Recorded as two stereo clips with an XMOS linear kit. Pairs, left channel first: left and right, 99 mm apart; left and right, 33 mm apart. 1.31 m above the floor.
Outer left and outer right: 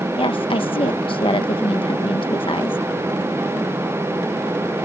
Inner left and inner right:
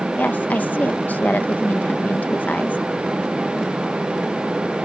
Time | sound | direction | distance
0.2 | a woman speaking | 60° left (ahead or behind) | ?